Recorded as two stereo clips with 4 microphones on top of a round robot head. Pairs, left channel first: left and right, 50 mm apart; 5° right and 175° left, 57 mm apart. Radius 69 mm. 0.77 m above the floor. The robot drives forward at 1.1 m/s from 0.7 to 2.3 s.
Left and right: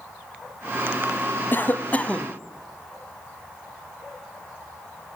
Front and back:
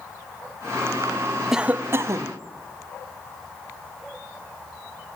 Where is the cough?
95° left, 0.6 m; by 2.4 s 155° left, 1.1 m.